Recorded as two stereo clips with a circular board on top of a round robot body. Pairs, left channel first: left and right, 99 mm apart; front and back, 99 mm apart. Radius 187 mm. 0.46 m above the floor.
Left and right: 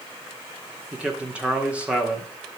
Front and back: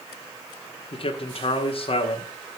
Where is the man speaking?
15° right, 1.8 m.